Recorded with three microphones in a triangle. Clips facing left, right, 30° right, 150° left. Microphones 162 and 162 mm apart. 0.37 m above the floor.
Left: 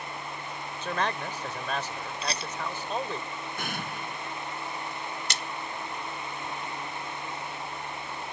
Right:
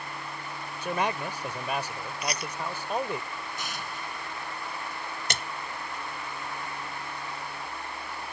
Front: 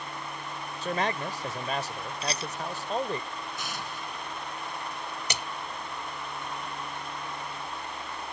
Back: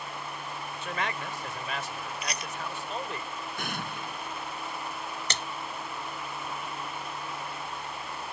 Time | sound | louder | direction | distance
0.8 | a man speaking | right 2 dB, front 5 dB | 20° right | ?
2.2 | a rattle | right 2 dB, front 4 dB | 30° left | ?
3.6 | an explosion | left 2 dB, back 2 dB | 120° left | ?
5.3 | a splash | right 1 dB, front 2 dB | 105° right | ?